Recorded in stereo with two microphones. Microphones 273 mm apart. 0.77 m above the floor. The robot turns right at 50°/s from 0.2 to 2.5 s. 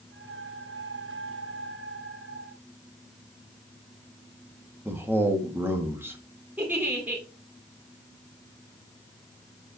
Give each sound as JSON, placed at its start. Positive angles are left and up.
{"t": 4.8, "sound": "a man speaking", "side_deg": -10, "distance_m": 1.4}
{"t": 6.6, "sound": "a giggle", "side_deg": -5, "distance_m": 2.0}